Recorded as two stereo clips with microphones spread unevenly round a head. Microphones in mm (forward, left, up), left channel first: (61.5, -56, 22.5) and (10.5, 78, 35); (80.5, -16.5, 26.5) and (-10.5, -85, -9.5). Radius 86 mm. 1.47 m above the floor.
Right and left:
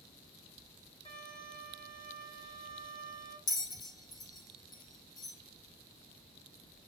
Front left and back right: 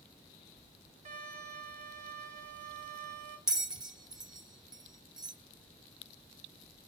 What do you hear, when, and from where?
1.1 s a violin: 125° right, 1.8 m
3.5 s a bell: 25° right, 0.5 m